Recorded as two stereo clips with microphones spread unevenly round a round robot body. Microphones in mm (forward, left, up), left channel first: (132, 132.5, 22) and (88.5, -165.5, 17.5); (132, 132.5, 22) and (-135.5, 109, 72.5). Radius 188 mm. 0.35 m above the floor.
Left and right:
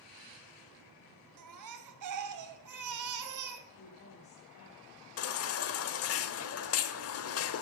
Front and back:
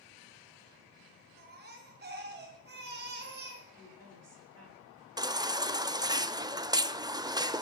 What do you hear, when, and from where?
1.4 s a baby crying: 110° right, 1.6 m
3.7 s a woman speaking: 135° left, 4 m
5.2 s a baby crying: 100° left, 0.9 m